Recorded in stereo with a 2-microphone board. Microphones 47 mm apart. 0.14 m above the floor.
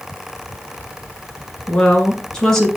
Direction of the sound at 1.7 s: 30° left (ahead or behind).